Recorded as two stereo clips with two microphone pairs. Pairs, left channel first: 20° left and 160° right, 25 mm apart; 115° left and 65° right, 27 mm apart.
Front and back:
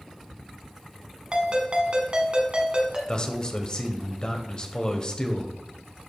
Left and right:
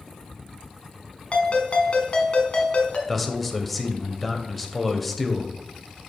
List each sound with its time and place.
1.3 s a ringtone: 150° left, 1.4 m
3.1 s a man speaking: 30° left, 1.0 m